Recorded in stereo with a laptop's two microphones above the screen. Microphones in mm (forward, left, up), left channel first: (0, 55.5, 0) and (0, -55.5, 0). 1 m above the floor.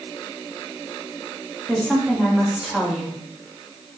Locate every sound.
1.7 s a woman speaking: 5° right (ahead or behind), 1.7 m